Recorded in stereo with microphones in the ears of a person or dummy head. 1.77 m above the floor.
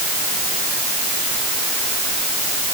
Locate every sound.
Only background noise.